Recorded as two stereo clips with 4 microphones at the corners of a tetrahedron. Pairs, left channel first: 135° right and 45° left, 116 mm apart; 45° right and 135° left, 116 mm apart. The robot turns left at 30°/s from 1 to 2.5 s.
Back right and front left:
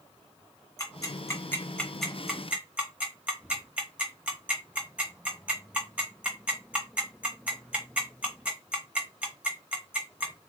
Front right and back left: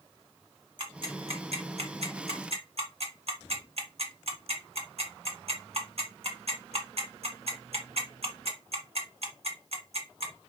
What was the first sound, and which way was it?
Ticking, 170° left.